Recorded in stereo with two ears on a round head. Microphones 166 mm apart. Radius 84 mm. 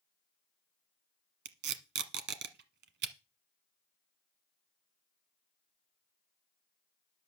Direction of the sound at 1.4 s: 60° right (ahead or behind).